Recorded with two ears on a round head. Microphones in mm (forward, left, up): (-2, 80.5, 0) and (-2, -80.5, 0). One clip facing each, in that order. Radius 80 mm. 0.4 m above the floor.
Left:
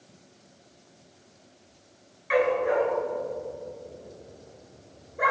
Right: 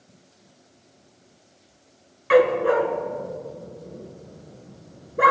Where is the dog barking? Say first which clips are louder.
Right 6 dB; 65° right (ahead or behind), 1.3 m.